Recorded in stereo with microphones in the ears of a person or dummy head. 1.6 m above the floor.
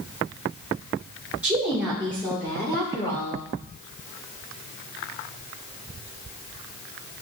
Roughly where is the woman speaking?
Centre.